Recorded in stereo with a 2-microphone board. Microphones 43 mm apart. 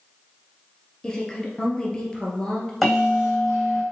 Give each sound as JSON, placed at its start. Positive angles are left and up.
{"t": 1.0, "sound": "a woman speaking", "side_deg": 20, "distance_m": 2.0}
{"t": 2.8, "sound": "a bell", "side_deg": 5, "distance_m": 3.5}